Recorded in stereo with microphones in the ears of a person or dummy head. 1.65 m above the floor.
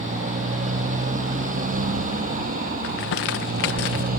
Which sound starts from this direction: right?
A motorcycle, at 0.0 s.